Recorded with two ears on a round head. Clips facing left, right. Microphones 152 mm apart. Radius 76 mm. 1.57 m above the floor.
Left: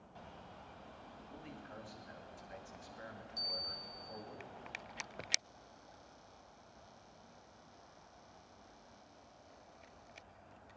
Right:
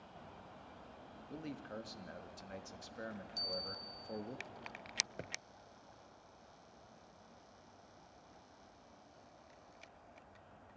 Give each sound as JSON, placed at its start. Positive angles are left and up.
{"t": 1.3, "sound": "a man speaking", "side_deg": -50, "distance_m": 2.0}
{"t": 3.4, "sound": "a bell", "side_deg": -30, "distance_m": 1.3}
{"t": 5.2, "sound": "a thud", "side_deg": -20, "distance_m": 1.3}